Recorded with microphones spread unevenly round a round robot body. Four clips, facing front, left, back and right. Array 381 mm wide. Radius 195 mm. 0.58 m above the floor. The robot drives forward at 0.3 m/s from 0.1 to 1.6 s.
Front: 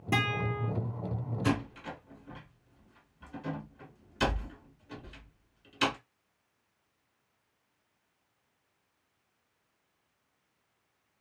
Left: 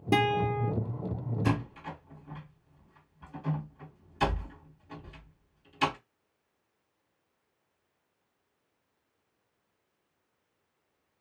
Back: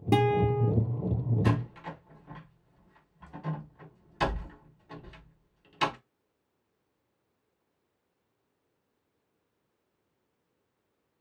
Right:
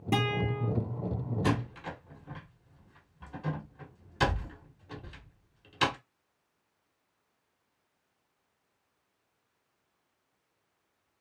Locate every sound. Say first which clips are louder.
0.1 s a guitar: left 4 dB, back 8 dB; 165° left, 0.6 m; by 0.7 s 170° left, 0.7 m
1.4 s a door slam: even, front 4 dB; 110° right, 1.1 m